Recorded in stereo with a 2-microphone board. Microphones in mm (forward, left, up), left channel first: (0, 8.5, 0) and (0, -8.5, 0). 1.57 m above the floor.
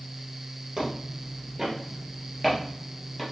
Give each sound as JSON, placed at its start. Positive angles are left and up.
{"t": 0.8, "sound": "footsteps", "side_deg": -35, "distance_m": 2.0}